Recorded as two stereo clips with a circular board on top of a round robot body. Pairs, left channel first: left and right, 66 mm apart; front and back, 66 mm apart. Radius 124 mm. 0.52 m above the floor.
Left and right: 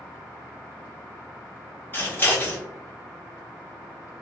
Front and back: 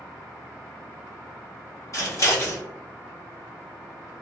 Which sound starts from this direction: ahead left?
Scissors, at 1.9 s.